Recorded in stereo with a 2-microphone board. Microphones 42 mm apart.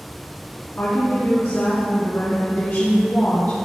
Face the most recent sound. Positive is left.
turn(degrees=60)  # may be behind; listen again after turning